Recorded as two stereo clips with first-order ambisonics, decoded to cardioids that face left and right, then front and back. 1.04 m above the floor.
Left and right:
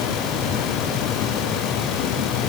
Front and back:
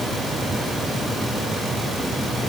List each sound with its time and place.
Only background noise.